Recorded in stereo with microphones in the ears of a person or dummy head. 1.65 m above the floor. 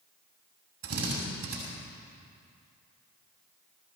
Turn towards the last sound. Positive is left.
turn(degrees=-55)  # may be behind; listen again after turning